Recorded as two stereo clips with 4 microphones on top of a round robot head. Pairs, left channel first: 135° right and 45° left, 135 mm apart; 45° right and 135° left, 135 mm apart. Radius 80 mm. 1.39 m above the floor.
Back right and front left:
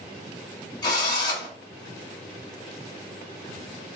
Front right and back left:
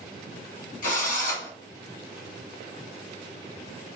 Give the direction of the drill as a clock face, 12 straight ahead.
2 o'clock.